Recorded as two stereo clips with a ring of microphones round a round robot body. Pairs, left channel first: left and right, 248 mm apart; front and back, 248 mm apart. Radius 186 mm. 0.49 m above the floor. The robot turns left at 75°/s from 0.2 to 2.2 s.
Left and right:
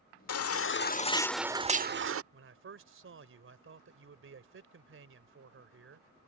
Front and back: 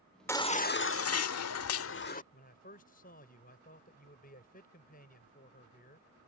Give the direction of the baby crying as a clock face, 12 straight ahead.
9 o'clock.